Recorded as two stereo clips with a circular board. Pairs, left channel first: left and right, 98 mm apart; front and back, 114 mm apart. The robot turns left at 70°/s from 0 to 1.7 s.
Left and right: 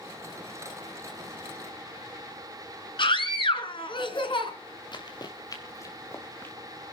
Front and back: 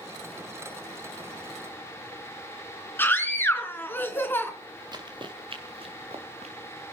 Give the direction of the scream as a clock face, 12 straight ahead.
10 o'clock.